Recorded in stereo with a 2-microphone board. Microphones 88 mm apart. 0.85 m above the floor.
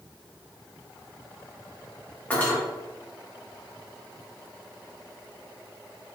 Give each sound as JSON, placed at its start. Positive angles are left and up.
{"t": 2.3, "sound": "cutlery clinking", "side_deg": 20, "distance_m": 1.2}